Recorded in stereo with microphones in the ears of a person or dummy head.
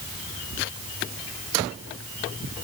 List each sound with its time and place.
Only background noise.